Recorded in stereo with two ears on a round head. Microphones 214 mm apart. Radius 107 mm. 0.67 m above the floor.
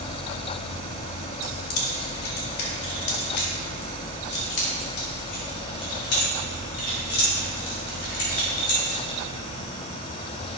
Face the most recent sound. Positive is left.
turn(degrees=55)  # may be behind; listen again after turning